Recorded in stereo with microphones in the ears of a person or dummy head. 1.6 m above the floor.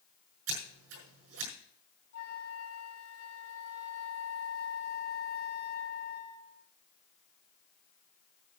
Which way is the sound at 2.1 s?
60° left (ahead or behind).